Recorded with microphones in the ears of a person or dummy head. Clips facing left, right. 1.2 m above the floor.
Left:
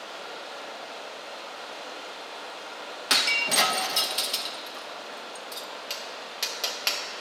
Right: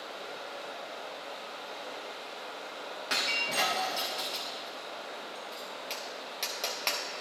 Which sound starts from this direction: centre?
Tapping, at 5.9 s.